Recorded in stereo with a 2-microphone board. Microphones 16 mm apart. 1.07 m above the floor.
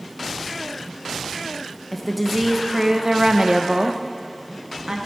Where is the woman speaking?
5° left (ahead or behind), 0.9 m; by 5.0 s 50° right (ahead or behind), 1.5 m.